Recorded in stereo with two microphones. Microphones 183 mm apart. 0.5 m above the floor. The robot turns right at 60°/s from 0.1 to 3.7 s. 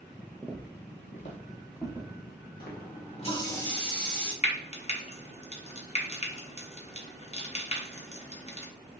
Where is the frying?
35° left (ahead or behind), 0.6 m.